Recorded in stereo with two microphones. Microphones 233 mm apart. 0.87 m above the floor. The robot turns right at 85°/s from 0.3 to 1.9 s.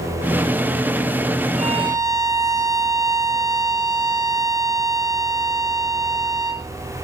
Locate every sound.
1.6 s a violin: 35° right (ahead or behind), 1.3 m; by 6.7 s 15° right (ahead or behind), 1.3 m